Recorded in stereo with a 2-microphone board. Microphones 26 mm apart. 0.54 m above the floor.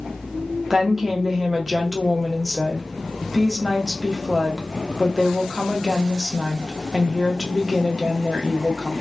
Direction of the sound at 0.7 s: 15° right (ahead or behind).